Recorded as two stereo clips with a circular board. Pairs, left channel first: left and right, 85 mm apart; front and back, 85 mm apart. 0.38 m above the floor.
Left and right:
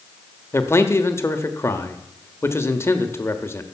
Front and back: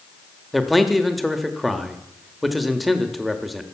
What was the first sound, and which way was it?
A man speaking, 90° left.